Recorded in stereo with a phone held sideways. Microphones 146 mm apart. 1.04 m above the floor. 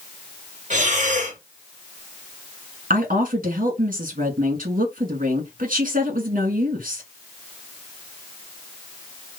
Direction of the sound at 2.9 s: 70° right (ahead or behind).